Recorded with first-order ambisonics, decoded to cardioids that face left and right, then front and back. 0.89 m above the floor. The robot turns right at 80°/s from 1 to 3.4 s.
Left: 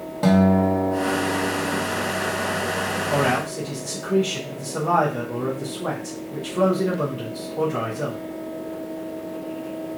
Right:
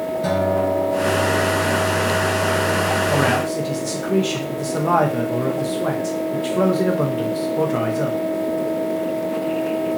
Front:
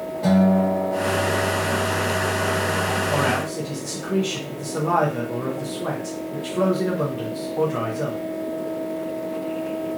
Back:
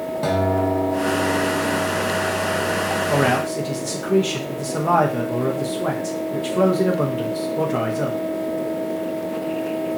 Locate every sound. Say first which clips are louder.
0.2 s a guitar: left 1 dB, even; 125° left, 1.0 m; by 1.9 s 170° right, 1.0 m
3.1 s a man speaking: right 3 dB, back 3 dB; 155° right, 0.6 m; by 8.2 s 130° right, 0.6 m